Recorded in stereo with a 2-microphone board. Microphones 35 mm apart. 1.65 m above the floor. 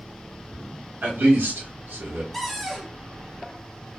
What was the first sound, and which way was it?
A man speaking, 75° right (ahead or behind).